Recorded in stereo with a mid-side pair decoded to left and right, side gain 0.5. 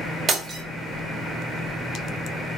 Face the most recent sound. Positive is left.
turn(degrees=-40)